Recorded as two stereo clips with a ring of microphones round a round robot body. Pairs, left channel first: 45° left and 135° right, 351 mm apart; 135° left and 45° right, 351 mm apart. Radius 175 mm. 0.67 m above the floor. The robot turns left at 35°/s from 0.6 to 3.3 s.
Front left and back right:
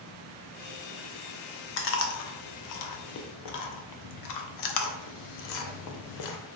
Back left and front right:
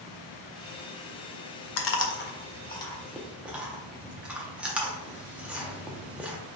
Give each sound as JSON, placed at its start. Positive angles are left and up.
{"t": 1.8, "sound": "chewing", "azimuth_deg": 95, "distance_m": 0.5}